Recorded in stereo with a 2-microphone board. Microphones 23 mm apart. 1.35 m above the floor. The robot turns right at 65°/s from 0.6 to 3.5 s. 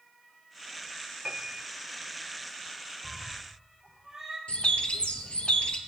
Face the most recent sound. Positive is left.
turn(degrees=60)  # may be behind; listen again after turning